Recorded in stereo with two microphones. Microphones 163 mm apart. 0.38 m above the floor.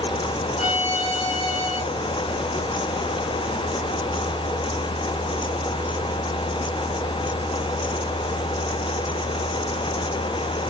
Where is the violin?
45° left (ahead or behind), 0.8 m.